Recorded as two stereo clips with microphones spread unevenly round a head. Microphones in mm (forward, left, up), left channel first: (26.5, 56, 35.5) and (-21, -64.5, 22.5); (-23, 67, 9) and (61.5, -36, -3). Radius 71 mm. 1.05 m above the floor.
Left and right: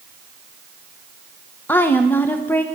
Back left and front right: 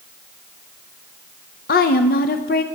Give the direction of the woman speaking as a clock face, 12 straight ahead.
7 o'clock.